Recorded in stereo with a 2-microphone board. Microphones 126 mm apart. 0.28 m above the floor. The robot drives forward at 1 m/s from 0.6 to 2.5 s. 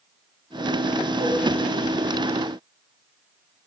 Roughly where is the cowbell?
Left.